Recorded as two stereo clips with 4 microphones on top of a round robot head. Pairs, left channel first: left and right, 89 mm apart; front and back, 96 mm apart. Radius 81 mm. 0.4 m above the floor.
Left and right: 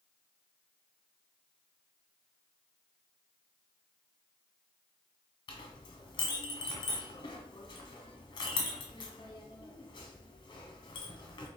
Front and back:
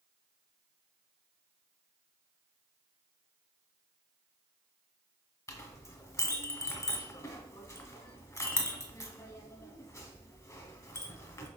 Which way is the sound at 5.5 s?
50° left.